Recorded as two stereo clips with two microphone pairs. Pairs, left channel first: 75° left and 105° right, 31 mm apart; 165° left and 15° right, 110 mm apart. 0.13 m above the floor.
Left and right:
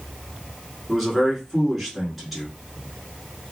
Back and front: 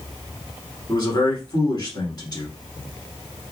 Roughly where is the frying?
No frying in this recording.